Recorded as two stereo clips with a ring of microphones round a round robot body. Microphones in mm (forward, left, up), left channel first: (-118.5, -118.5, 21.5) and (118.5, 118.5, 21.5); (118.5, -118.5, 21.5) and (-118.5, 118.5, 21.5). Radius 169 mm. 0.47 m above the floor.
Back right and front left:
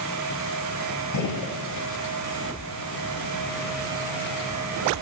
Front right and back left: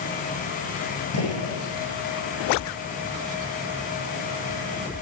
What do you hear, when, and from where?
1.1 s a gunshot: 95° right, 8 m